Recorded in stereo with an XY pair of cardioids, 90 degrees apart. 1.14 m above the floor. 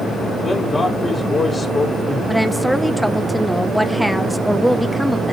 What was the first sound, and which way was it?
A man speaking, 30° left.